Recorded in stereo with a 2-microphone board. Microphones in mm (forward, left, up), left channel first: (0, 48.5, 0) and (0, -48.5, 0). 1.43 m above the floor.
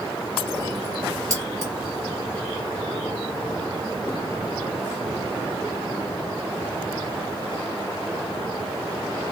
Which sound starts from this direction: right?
Keys jangling, at 1.3 s.